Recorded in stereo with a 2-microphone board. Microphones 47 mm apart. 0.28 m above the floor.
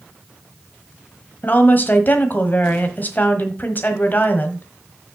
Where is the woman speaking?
40° left (ahead or behind), 1.3 m.